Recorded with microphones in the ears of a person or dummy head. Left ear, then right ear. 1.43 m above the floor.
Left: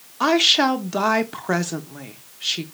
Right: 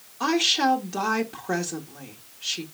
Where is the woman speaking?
35° left (ahead or behind), 0.6 m.